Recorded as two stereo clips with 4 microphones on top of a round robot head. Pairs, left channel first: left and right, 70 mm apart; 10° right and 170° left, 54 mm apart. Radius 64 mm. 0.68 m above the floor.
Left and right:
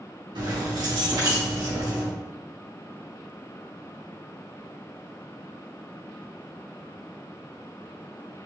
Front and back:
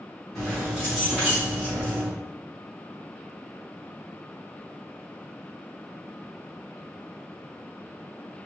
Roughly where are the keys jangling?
Right.